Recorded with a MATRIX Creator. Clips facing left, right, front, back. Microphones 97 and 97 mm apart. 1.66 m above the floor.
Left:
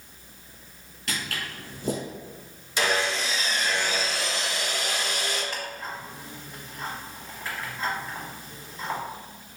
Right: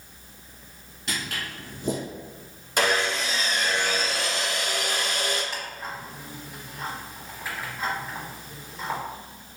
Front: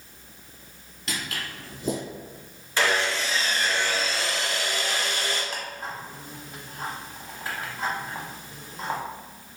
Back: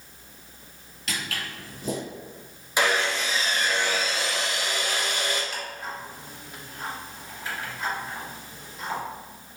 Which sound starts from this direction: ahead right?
Footsteps, at 1.1 s.